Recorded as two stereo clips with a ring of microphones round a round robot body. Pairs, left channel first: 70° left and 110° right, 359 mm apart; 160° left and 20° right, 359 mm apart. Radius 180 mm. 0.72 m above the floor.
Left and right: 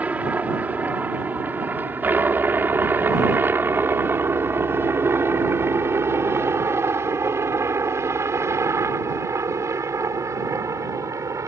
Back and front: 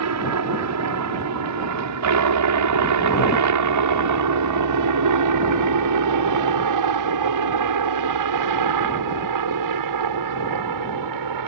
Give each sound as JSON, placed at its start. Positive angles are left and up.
{"t": 0.0, "sound": "a helicopter", "azimuth_deg": -30}